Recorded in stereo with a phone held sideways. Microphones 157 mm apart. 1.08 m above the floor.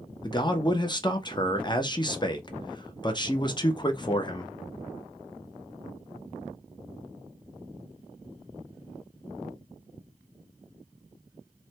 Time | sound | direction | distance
0.2 | a man speaking | 30° left (ahead or behind) | 0.5 m